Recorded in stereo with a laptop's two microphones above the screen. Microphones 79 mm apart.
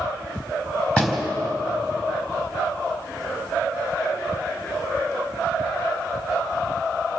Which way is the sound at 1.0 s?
10° left (ahead or behind).